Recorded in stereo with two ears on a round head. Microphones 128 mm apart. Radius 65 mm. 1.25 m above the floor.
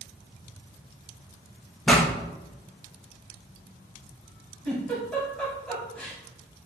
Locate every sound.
1.9 s a pop: 5° left (ahead or behind), 2.5 m
4.7 s a giggle: 10° left (ahead or behind), 3.5 m